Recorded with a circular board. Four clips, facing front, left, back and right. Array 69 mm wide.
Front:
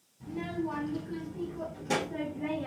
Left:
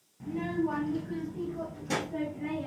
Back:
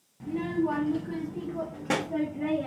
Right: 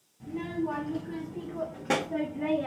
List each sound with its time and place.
0.2 s a child speaking: 165° left, 1.2 m; by 2.7 s 115° right, 1.9 m